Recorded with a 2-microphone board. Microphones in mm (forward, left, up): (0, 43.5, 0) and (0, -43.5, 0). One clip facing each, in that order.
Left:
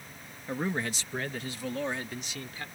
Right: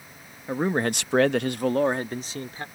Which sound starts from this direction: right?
A man speaking, at 0.5 s.